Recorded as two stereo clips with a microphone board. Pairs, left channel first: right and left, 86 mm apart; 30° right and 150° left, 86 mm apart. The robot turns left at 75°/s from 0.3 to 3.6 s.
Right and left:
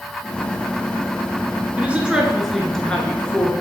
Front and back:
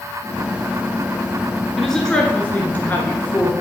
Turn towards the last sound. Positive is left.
turn(degrees=-80)